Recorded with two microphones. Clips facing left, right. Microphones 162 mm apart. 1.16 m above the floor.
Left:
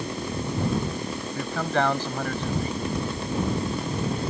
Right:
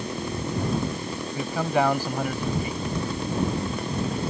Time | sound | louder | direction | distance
1.4 | a man speaking | right 2 dB | 10° right (ahead or behind) | ?